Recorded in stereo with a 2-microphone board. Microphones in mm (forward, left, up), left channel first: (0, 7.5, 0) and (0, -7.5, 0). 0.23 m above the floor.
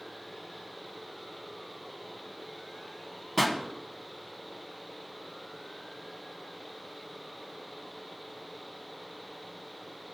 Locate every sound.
3.4 s a pop: centre (ahead or behind), 1.5 m